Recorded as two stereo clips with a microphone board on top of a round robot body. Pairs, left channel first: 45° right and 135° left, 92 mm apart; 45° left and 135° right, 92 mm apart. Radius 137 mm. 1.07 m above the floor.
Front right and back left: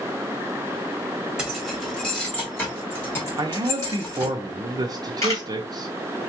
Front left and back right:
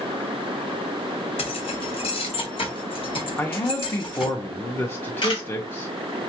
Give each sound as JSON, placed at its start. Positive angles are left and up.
{"t": 1.4, "sound": "keys jangling", "azimuth_deg": 50, "distance_m": 1.2}
{"t": 3.4, "sound": "a man speaking", "azimuth_deg": 105, "distance_m": 0.7}
{"t": 5.2, "sound": "a camera shutter", "azimuth_deg": 10, "distance_m": 2.0}